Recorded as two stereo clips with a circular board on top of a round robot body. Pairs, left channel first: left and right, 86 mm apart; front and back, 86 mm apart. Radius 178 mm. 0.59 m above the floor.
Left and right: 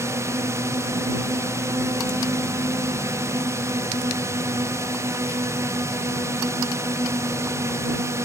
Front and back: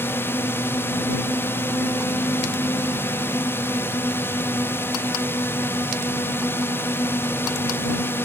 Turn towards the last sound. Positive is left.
turn(degrees=-50)